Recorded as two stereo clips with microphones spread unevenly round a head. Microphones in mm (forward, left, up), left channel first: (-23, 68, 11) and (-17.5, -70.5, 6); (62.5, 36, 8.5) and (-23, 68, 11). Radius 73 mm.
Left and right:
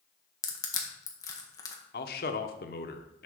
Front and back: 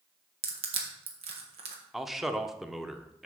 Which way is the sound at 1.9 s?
75° left.